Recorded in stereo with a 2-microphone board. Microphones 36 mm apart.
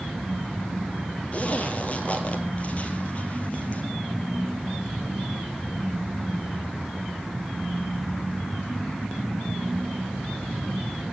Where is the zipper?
35° left (ahead or behind), 2.0 m.